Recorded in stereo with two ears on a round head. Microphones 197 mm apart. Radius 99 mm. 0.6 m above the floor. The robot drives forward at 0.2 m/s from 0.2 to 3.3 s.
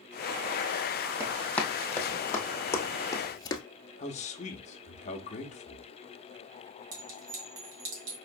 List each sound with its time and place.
1.2 s running footsteps: 5° left (ahead or behind), 1.7 m; by 3.6 s 20° left (ahead or behind), 0.7 m
4.0 s a man speaking: 30° left (ahead or behind), 0.8 m
6.9 s a clink: 70° right (ahead or behind), 2.5 m